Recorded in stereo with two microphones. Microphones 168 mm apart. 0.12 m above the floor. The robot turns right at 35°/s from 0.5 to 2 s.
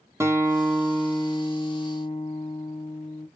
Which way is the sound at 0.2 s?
15° right.